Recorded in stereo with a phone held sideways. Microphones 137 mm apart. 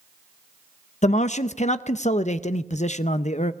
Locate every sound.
1.0 s a man speaking: 55° left (ahead or behind), 0.7 m